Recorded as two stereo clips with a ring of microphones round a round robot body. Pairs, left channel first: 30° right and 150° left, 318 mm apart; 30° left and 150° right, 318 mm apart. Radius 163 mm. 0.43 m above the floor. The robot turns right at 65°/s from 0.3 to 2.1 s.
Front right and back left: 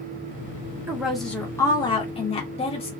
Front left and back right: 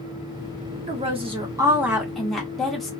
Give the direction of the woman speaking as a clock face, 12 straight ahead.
5 o'clock.